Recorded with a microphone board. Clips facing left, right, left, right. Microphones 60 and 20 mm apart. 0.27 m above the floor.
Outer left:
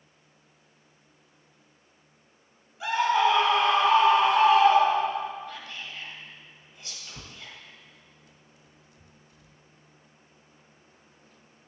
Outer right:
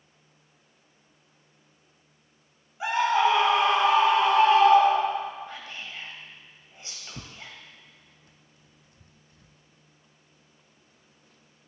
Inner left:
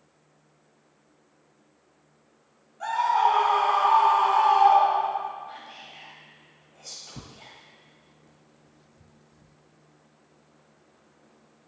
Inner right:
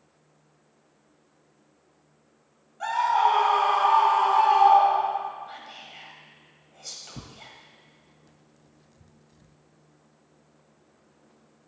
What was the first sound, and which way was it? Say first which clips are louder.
A scream: even, even; 25° right (ahead or behind).